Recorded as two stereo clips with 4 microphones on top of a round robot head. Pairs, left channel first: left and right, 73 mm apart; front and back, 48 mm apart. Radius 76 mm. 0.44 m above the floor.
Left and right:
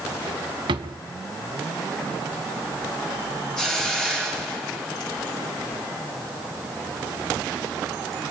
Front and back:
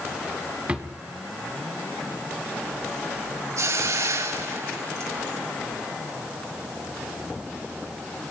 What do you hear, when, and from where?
0.7 s a drawer: 110° right, 1.7 m
3.6 s a hiss: 170° left, 8 m